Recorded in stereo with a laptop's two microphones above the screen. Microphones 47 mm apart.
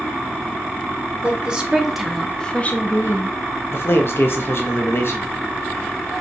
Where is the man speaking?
55° left (ahead or behind), 0.7 m.